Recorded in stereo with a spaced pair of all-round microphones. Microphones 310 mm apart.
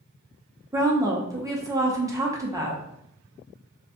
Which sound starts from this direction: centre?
A woman speaking, at 0.7 s.